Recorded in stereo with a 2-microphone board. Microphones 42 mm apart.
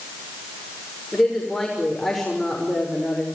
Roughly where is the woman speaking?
Centre.